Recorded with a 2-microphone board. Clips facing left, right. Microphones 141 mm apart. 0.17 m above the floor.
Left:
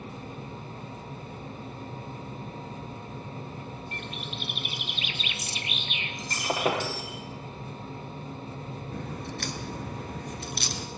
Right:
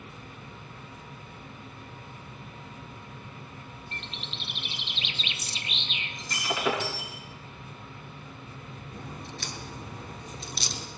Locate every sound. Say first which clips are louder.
3.9 s a bird: left 5 dB; 25° right (ahead or behind), 2 m
6.2 s breaking glass: left 2 dB; 45° left (ahead or behind), 7.5 m
8.9 s a crack: left 4 dB; 60° left (ahead or behind), 2.5 m